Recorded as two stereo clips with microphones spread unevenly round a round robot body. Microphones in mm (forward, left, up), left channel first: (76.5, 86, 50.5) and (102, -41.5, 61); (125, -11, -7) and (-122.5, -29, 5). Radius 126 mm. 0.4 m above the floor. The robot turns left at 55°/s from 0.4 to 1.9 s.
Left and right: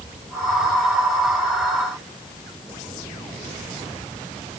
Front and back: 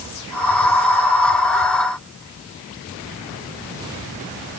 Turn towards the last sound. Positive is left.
No sound to turn to.